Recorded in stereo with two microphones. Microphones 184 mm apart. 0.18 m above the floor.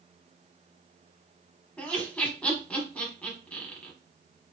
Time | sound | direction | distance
1.8 | laughter | 5° left (ahead or behind) | 1.0 m